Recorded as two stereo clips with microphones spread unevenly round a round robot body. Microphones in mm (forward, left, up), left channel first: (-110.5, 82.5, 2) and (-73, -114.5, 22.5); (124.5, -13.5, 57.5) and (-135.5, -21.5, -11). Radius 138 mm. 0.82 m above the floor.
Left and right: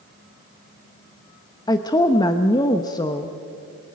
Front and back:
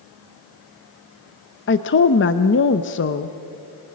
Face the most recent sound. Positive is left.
turn(degrees=50)